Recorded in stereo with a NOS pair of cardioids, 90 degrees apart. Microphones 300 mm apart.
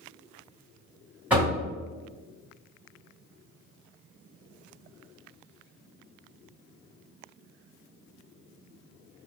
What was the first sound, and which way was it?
Knocking, 5° right.